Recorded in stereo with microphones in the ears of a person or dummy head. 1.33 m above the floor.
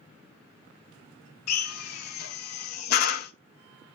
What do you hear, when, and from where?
1.5 s a drill: 50° left (ahead or behind), 1.1 m